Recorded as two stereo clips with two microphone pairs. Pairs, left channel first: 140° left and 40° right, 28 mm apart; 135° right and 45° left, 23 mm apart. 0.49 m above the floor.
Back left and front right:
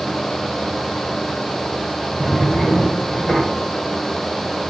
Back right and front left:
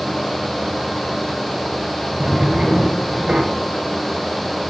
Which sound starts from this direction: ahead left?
A drawer, at 2.2 s.